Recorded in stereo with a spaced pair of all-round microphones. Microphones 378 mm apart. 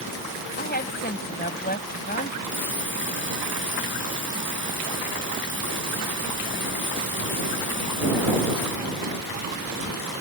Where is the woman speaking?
25° left (ahead or behind).